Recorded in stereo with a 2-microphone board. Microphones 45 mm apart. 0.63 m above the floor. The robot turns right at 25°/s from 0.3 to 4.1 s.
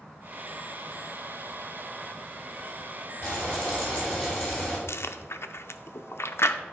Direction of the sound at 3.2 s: 40° left (ahead or behind).